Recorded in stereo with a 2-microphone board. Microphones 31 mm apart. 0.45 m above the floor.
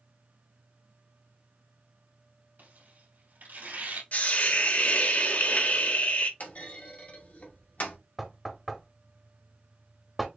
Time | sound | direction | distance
2.6 | tearing paper | 85° right | 3 m
4.1 | a hiss | 60° left (ahead or behind) | 0.9 m
6.4 | a clunk | 65° left (ahead or behind) | 1.7 m
8.2 | knocking | 5° right (ahead or behind) | 1.1 m